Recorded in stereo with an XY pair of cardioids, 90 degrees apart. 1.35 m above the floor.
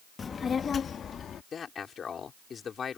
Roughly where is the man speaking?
Ahead left.